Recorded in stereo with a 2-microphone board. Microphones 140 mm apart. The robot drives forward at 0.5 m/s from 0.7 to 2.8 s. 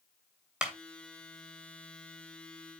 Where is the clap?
5° right (ahead or behind), 2.5 m.